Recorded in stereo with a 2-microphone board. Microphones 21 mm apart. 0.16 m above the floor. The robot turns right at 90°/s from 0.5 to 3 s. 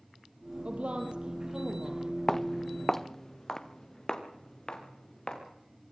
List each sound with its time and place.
0.7 s a woman speaking: 105° right, 4 m; by 2.1 s 30° left, 4 m
2.3 s footsteps: 15° left (ahead or behind), 0.7 m; by 5.4 s 40° left (ahead or behind), 4.5 m